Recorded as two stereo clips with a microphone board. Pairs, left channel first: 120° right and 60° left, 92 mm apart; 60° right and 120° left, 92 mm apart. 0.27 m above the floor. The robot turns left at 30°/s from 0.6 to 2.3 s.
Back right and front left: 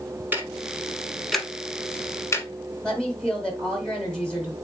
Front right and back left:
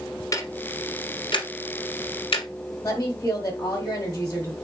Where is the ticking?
10° right, 0.9 m; by 2.5 s 60° right, 0.9 m.